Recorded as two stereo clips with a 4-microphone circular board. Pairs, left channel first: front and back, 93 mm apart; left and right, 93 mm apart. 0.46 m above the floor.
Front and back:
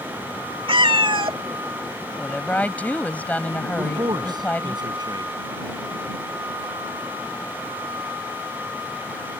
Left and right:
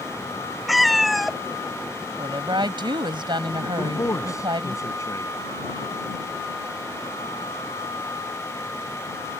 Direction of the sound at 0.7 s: Straight behind.